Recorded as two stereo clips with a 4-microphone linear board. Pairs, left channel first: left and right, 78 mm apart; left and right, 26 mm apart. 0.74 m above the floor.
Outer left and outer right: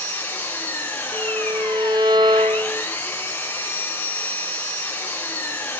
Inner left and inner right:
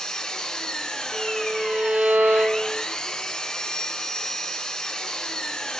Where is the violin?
65° right (ahead or behind), 2.5 m.